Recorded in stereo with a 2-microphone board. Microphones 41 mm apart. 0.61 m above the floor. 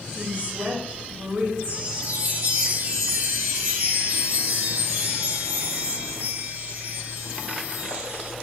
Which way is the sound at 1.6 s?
50° right (ahead or behind).